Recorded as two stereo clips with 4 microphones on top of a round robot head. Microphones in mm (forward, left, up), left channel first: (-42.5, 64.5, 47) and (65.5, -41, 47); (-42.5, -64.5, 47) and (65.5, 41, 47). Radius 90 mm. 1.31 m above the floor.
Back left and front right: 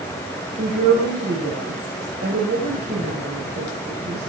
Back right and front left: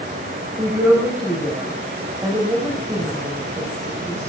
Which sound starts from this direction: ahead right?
A woman speaking, at 0.6 s.